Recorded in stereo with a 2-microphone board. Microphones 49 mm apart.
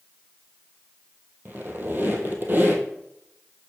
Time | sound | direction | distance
1.4 | a squeak | 45° right (ahead or behind) | 1.5 m